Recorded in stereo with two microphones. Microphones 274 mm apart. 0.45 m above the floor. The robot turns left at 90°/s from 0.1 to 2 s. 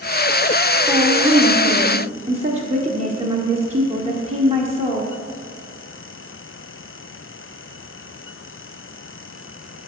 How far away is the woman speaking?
About 1.1 m.